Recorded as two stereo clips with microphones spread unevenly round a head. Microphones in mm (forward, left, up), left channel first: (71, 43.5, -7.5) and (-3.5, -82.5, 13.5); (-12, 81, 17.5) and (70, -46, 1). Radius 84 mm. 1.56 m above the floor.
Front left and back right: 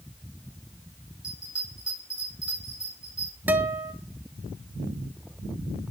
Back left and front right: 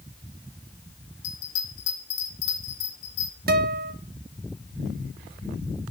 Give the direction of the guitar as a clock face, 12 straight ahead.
1 o'clock.